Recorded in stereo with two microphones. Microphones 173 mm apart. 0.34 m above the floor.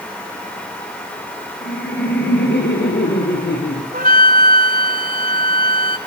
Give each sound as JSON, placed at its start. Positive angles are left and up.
{"t": 1.6, "sound": "laughter", "side_deg": 80, "distance_m": 7.0}
{"t": 3.9, "sound": "a flute", "side_deg": -60, "distance_m": 1.8}